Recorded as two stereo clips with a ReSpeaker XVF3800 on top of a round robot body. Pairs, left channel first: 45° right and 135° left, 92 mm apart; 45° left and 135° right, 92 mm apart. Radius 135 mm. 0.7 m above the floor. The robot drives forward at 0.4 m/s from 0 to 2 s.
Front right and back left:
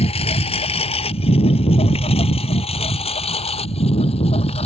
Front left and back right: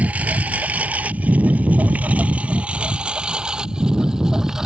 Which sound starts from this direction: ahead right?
A lawn mower, at 0.0 s.